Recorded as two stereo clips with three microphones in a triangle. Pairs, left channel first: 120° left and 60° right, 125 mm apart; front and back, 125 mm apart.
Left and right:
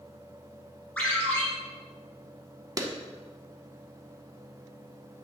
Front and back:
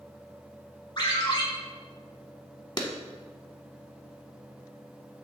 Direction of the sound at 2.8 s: 20° right.